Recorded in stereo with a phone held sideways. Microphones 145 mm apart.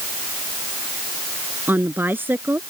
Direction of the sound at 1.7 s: 15° right (ahead or behind).